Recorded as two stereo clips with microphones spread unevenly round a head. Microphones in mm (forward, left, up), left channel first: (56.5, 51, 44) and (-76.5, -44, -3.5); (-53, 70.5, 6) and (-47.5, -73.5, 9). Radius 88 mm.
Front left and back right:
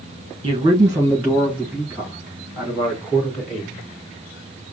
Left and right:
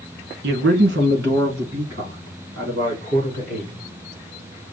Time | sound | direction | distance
0.4 | a man speaking | 80° right | 1.1 m